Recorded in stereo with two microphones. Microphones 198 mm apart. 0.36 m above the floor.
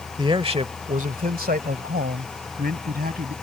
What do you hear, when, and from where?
0.2 s a man speaking: 20° right (ahead or behind); by 3.3 s 55° right (ahead or behind)